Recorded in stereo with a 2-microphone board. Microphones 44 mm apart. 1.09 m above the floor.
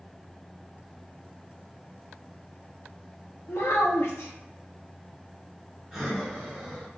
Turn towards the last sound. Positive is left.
turn(degrees=-5)  # may be behind; listen again after turning